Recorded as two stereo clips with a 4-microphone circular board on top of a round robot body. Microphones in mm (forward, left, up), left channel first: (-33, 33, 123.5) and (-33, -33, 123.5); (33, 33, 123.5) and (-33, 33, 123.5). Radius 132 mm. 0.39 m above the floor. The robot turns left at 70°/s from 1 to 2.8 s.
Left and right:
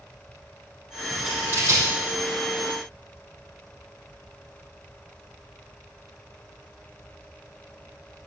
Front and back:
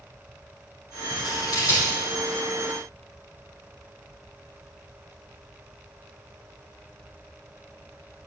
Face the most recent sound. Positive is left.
turn(degrees=-120)